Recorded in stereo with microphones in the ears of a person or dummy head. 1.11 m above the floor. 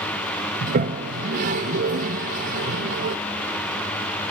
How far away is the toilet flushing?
About 0.6 m.